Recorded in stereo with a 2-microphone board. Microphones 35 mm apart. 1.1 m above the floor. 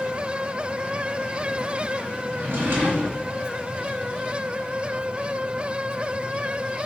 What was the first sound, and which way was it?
A drawer, 65° right (ahead or behind).